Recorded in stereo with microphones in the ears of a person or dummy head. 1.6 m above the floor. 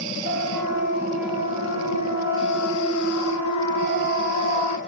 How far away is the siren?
About 6 m.